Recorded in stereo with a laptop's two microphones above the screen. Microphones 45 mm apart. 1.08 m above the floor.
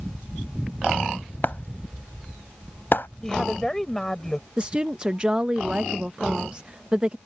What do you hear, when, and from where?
1.4 s breaking glass: 50° left (ahead or behind)
3.2 s a woman speaking: 10° left (ahead or behind)
4.6 s a woman speaking: 25° right (ahead or behind)